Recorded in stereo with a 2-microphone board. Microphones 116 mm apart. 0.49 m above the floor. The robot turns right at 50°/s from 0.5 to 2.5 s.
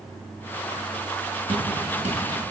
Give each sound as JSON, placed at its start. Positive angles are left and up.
{"t": 1.5, "sound": "dripping", "side_deg": -50, "distance_m": 2.5}